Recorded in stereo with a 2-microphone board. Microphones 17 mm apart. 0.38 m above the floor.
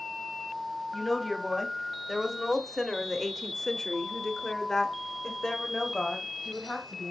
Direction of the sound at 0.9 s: Centre (ahead or behind).